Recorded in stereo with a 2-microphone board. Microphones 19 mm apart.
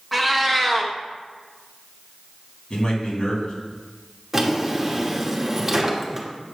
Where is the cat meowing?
Centre (ahead or behind), 1.0 m.